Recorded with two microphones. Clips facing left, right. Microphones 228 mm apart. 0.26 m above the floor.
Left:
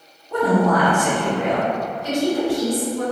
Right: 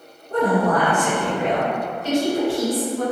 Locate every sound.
0.3 s a woman speaking: 45° right (ahead or behind), 1.3 m
2.0 s a woman speaking: 40° right (ahead or behind), 1.9 m